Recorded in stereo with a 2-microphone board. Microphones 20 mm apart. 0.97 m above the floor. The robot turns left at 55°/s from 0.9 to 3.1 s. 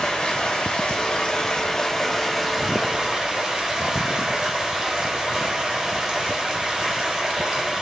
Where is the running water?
85° left, 1.5 m; by 7.8 s 40° right, 1.5 m.